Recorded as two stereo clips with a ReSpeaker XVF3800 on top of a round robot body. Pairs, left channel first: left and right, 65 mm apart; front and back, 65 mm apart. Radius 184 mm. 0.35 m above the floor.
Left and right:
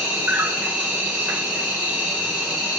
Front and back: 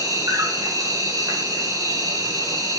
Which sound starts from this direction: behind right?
An insect, at 0.0 s.